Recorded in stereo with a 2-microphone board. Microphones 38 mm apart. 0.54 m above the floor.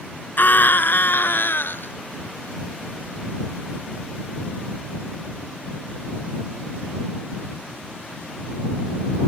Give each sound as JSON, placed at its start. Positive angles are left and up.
{"t": 0.4, "sound": "a scream", "side_deg": 55}